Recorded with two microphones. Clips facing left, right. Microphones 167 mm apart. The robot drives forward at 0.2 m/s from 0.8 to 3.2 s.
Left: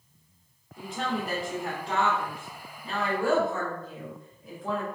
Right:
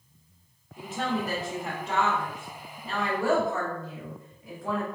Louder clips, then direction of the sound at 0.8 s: Right 1 dB; centre (ahead or behind).